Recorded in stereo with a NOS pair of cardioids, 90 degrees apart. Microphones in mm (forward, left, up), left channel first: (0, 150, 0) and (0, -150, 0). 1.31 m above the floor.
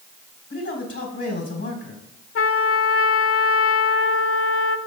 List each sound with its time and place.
0.5 s a man speaking: 45° left, 4 m
2.4 s a trumpet: 50° left, 0.8 m